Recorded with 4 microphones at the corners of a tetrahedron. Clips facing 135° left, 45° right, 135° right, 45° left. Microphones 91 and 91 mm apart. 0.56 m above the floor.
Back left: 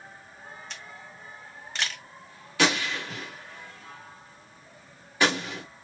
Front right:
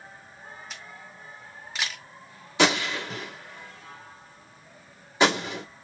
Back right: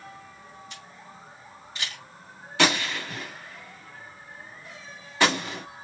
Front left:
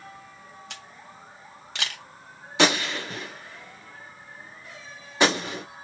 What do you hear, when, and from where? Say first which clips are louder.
0.7 s a camera shutter: even, front left 1 dB; 40° left, 0.7 m
2.6 s a gunshot: front right 2 dB, front left 2 dB; 5° right, 1.4 m